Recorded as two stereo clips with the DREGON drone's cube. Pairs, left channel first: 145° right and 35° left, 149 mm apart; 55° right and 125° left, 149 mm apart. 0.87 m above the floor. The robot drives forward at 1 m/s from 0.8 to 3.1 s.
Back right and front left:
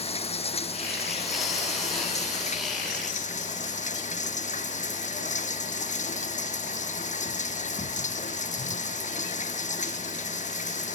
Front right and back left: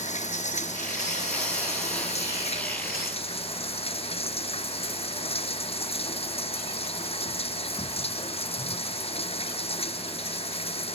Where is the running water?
95° right; by 11.0 s 105° right.